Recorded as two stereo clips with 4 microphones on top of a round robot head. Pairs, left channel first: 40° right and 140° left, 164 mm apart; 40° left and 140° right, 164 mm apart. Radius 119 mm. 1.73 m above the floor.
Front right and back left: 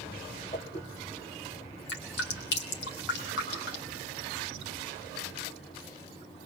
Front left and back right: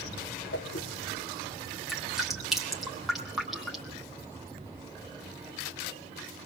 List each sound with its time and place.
0.5 s a whoosh: 15° left, 0.9 m
1.9 s dripping: 55° right, 3 m